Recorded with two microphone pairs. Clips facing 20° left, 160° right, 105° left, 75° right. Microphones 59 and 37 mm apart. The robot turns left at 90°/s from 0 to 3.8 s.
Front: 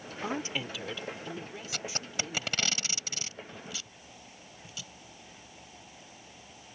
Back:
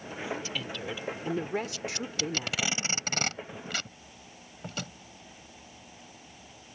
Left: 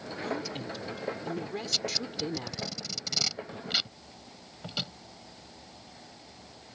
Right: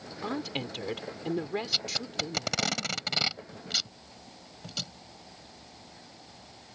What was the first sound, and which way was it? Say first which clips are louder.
A woman speaking: front 2 dB, right 2 dB; 15° right.